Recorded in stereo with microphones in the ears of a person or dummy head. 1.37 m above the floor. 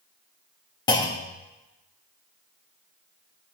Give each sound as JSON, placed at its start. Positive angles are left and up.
{"t": 0.9, "sound": "a clunk", "side_deg": 20, "distance_m": 0.5}